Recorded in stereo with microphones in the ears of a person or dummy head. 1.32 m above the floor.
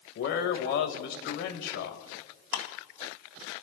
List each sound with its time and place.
0.1 s a man speaking: 60° left (ahead or behind), 2 m
2.5 s ticking: 60° left (ahead or behind), 1.8 m